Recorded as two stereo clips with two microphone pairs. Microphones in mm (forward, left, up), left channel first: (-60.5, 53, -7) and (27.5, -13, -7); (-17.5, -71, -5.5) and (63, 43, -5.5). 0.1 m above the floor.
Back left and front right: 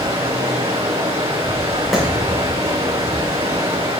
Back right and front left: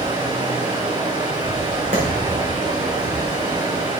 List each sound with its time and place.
0.0 s running water: 5° right, 4 m
1.9 s a clap: 55° left, 5 m